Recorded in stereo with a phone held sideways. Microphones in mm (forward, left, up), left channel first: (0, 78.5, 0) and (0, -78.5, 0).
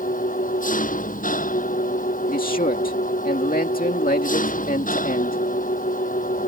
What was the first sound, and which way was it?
An engine running, 60° left (ahead or behind).